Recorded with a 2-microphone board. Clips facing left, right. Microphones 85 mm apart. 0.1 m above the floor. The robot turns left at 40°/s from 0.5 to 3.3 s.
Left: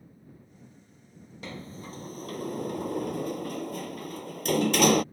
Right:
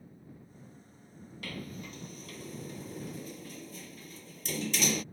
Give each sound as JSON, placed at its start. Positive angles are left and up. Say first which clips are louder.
{"t": 1.4, "sound": "a sliding door", "louder": "left 2 dB", "side_deg": 20}